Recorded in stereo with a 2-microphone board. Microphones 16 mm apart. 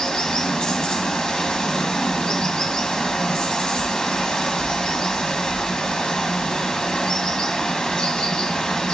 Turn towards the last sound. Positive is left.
turn(degrees=65)  # may be behind; listen again after turning